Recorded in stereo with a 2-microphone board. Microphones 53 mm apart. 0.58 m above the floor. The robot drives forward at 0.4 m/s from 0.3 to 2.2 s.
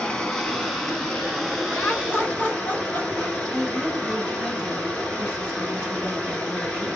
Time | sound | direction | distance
0.0 | running water | 15° left (ahead or behind) | 0.8 m
1.7 | laughter | 25° left (ahead or behind) | 1.2 m
3.5 | a woman speaking | 20° right (ahead or behind) | 1.1 m